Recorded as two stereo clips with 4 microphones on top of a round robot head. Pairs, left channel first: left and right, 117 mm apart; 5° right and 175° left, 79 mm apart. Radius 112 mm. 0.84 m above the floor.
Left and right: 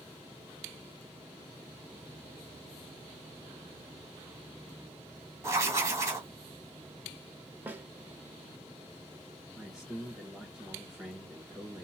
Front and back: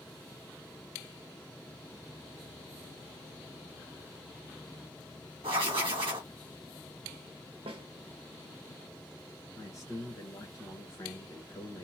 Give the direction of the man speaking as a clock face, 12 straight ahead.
12 o'clock.